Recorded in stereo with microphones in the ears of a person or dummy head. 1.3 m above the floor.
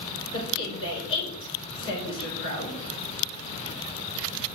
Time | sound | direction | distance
0.3 | a woman speaking | 30° left (ahead or behind) | 6.5 m